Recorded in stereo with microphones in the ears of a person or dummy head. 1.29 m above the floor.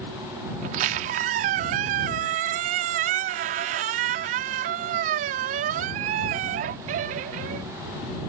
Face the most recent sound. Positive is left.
turn(degrees=-50)  # may be behind; listen again after turning